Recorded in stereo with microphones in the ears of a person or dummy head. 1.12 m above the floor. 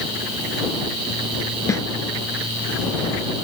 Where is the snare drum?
15° left (ahead or behind).